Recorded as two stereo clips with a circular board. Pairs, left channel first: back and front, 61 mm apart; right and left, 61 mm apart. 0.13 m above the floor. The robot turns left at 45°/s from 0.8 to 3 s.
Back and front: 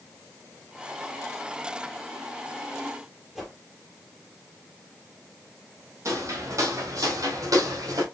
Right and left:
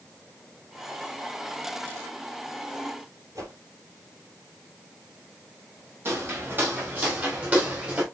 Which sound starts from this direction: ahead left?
Footsteps, at 6.0 s.